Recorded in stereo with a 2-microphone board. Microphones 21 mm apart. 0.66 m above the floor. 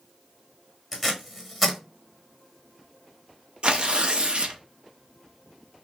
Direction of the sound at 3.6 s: 45° right (ahead or behind).